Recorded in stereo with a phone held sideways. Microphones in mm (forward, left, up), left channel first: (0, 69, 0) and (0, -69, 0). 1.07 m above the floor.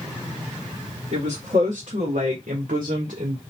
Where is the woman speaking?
55° right (ahead or behind), 1.4 m; by 3.4 s 60° right (ahead or behind), 0.7 m.